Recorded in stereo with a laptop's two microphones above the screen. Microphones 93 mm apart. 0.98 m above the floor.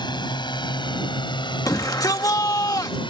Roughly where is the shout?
Left.